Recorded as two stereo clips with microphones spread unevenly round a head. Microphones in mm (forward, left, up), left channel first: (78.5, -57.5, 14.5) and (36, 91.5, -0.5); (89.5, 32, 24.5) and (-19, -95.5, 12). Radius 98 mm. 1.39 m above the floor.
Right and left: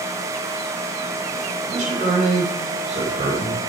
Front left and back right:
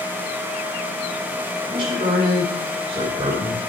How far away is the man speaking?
About 2 m.